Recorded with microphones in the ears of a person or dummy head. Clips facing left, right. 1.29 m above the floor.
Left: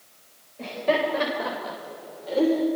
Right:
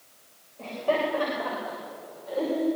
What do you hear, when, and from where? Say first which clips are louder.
0.6 s laughter: left 2 dB; 20° left (ahead or behind), 5 m; by 2.7 s 45° left (ahead or behind), 3.5 m